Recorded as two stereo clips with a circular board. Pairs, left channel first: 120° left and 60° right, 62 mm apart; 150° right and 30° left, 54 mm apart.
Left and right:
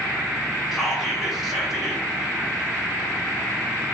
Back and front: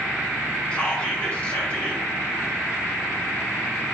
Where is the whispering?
135° right, 0.7 m.